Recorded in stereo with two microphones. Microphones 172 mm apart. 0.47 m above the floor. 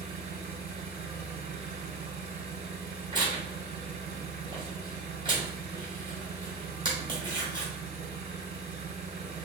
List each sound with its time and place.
0.0 s an engine running: 40° right (ahead or behind), 1.2 m
3.1 s tearing paper: 30° right (ahead or behind), 2 m